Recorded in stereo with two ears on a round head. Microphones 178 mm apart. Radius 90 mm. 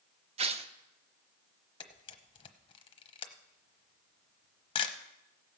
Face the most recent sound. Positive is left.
turn(degrees=25)  # may be behind; listen again after turning